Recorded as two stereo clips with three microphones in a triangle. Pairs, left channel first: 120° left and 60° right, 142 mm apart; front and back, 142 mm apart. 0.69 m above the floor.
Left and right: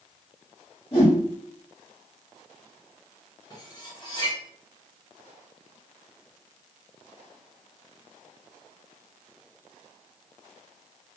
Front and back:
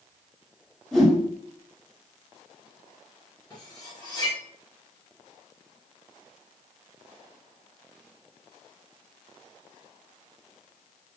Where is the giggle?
No giggle in this recording.